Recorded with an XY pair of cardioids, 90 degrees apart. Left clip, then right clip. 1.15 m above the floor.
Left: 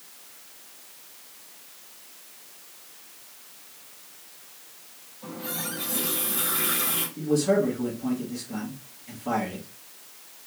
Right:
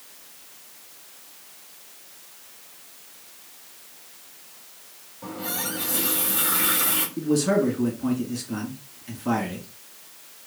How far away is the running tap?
About 2 m.